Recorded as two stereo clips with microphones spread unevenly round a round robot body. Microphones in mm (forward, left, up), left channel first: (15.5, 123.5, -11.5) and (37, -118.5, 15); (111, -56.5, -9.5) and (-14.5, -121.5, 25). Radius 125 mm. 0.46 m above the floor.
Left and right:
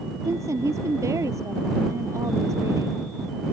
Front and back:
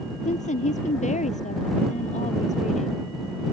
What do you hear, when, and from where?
0.2 s a woman speaking: 5° right